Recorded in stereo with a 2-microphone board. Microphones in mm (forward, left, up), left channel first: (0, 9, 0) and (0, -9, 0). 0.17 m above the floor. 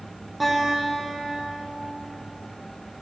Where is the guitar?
10° right (ahead or behind), 4.5 m.